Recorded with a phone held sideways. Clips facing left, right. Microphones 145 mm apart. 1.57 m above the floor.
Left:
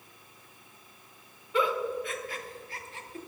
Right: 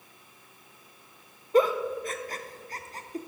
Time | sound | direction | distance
1.5 | a giggle | 40° right (ahead or behind) | 0.7 m